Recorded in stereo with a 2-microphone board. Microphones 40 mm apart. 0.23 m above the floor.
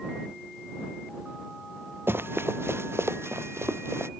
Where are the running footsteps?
60° right (ahead or behind); by 4.1 s 85° right.